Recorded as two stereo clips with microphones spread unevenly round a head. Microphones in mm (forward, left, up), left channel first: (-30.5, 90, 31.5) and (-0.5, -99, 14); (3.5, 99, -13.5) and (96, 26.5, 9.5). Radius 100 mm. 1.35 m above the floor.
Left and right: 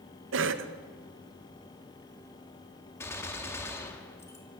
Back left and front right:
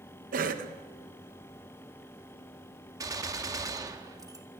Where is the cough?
60° right, 1.8 m.